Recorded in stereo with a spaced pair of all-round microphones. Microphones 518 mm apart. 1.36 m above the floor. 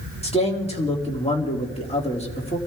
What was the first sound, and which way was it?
A man speaking, 10° left (ahead or behind).